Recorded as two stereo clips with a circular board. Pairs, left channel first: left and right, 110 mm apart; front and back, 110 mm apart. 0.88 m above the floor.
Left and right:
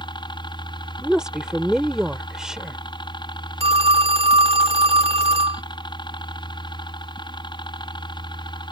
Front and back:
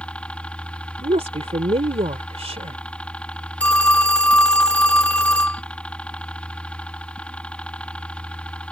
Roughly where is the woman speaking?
Behind.